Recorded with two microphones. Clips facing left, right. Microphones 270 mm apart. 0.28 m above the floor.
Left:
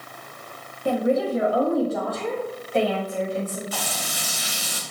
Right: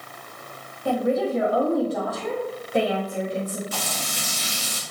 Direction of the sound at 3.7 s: 45° right (ahead or behind).